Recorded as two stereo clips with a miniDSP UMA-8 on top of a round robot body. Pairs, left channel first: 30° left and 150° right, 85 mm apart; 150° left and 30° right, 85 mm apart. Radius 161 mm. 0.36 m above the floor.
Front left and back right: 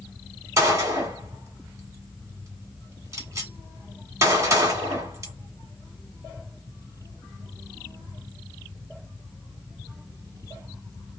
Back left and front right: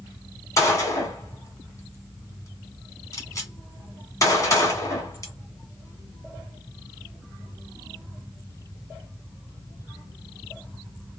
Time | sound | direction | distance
0.6 | a gunshot | straight behind | 1.7 m